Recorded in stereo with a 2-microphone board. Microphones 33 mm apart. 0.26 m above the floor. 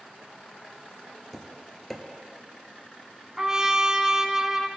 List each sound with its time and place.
1.3 s tapping: centre (ahead or behind), 1.4 m
3.4 s a trumpet: 20° right (ahead or behind), 0.5 m